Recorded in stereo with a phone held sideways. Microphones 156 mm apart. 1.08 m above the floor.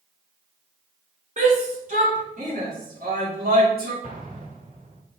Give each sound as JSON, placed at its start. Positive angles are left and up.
{"t": 1.4, "sound": "a shout", "side_deg": -50, "distance_m": 3.5}
{"t": 4.0, "sound": "an explosion", "side_deg": -60, "distance_m": 1.7}